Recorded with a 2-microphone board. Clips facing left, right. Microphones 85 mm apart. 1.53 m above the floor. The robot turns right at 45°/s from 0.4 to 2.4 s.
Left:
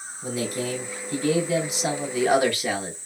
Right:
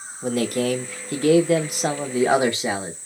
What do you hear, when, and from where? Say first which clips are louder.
0.2 s a man speaking: right 6 dB; 115° right, 0.5 m; by 3.0 s 25° right, 0.5 m